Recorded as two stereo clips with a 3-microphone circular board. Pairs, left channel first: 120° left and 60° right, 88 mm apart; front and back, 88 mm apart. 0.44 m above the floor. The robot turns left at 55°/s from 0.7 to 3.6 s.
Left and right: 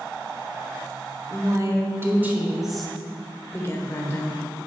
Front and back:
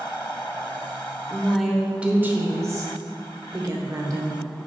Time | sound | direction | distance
1.3 | a woman speaking | 70° right | 1.2 m